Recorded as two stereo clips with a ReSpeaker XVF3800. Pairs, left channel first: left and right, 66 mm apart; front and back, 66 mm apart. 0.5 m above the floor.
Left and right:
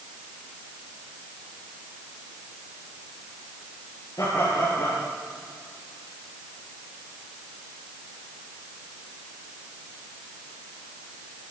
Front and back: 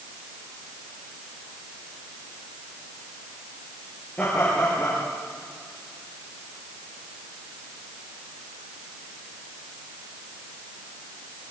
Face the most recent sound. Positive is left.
turn(degrees=70)